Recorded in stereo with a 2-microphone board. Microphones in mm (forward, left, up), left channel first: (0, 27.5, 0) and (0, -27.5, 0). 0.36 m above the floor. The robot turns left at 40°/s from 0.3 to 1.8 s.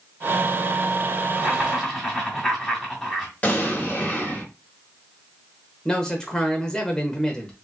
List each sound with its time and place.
1.4 s laughter: 5° right (ahead or behind), 1.5 m; by 3.3 s 10° left (ahead or behind), 1.5 m
3.4 s an explosion: 30° left (ahead or behind), 1.6 m
5.8 s a man speaking: 15° left (ahead or behind), 1.2 m